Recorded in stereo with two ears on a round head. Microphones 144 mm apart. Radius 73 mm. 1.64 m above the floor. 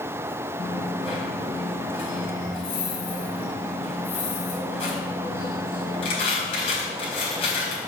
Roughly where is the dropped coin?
Left.